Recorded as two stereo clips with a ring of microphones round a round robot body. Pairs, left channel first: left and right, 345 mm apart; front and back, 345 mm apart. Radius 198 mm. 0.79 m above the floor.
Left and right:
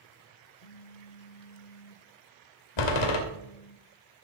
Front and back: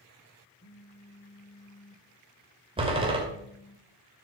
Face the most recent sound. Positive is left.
turn(degrees=105)